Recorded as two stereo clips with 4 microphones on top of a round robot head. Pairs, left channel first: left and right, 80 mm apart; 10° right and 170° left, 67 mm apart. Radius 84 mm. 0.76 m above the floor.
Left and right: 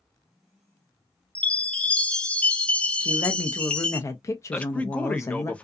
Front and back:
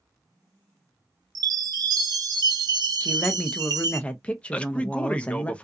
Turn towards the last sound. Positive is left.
turn(degrees=35)